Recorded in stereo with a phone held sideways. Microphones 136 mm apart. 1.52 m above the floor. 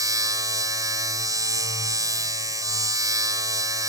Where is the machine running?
25° right (ahead or behind).